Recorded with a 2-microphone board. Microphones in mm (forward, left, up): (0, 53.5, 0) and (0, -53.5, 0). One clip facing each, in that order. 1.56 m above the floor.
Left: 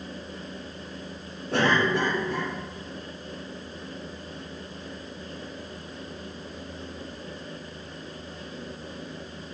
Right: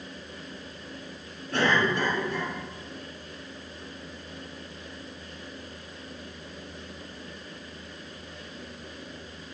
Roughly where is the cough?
Left.